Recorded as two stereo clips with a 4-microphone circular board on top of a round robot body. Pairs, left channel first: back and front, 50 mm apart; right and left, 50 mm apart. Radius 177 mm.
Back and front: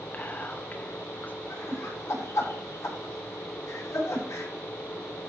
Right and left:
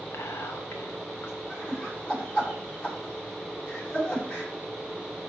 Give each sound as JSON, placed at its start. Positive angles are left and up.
{"t": 0.1, "sound": "whispering", "azimuth_deg": -120, "distance_m": 1.7}
{"t": 1.5, "sound": "laughter", "azimuth_deg": -155, "distance_m": 5.0}